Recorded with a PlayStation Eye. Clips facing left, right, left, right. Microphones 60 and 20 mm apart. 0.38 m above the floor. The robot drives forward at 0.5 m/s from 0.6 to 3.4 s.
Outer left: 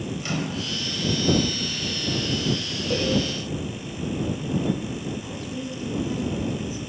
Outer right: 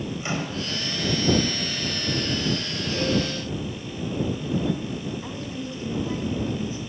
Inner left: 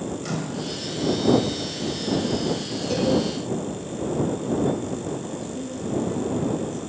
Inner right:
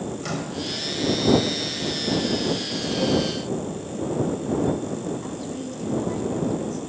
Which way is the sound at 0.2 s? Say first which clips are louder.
Outer left 1 dB, even; 25° right (ahead or behind).